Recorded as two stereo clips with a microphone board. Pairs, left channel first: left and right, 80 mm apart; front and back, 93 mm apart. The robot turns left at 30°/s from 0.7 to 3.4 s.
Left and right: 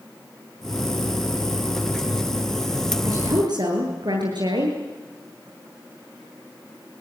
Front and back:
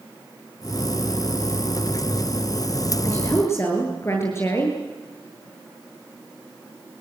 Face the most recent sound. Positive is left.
turn(degrees=-55)